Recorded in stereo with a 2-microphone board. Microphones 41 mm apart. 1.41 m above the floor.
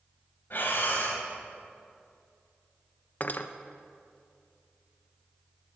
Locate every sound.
0.5 s breathing: 50° left (ahead or behind), 3 m
3.2 s cutlery clinking: 40° left (ahead or behind), 0.6 m